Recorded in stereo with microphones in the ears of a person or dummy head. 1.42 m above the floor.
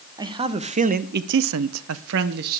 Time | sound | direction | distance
0.2 | a man speaking | 20° right (ahead or behind) | 1.3 m